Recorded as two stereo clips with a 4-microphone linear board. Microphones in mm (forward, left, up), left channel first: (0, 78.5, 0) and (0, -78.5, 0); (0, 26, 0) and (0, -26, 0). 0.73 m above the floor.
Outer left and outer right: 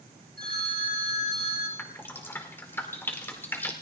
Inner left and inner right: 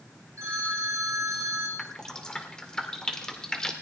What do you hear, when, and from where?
0.4 s a phone ringing: 75° right (ahead or behind), 4.5 m
1.8 s dripping: 15° left (ahead or behind), 2 m